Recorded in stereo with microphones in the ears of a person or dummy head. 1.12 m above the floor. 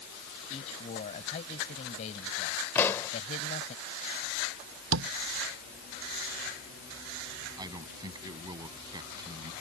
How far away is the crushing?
I don't hear crushing.